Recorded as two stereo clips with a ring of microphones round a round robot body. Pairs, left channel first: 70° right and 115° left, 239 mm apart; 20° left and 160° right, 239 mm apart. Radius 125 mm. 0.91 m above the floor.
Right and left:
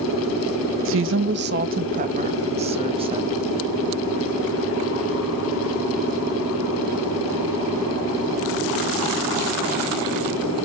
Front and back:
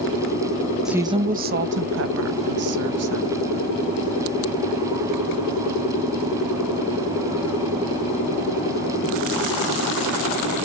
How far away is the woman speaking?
About 0.5 m.